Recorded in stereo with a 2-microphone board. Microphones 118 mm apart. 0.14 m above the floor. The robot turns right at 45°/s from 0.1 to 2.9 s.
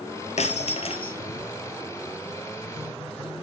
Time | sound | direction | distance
0.4 | breaking glass | 95° left | 2 m